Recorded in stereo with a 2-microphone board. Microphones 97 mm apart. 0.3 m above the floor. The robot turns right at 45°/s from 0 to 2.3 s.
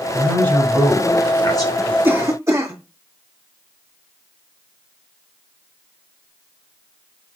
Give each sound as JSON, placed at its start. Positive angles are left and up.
{"t": 0.1, "sound": "a man speaking", "azimuth_deg": 15, "distance_m": 1.5}
{"t": 2.0, "sound": "a cough", "side_deg": -25, "distance_m": 1.4}